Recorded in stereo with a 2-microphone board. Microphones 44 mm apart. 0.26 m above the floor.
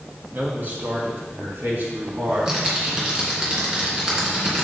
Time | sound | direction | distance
0.3 | a man speaking | 45° right (ahead or behind) | 2.5 m
2.3 | typing on a keyboard | 15° right (ahead or behind) | 2 m